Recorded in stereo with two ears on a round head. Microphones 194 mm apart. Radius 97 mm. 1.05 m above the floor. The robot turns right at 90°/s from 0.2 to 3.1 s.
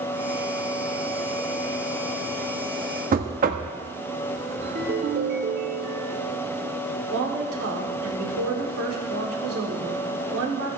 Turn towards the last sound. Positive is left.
turn(degrees=-70)  # may be behind; listen again after turning